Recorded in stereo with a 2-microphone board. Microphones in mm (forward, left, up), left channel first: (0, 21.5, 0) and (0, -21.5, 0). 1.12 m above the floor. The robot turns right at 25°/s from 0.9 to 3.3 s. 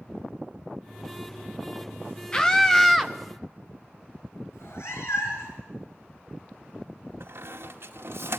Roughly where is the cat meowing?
Left.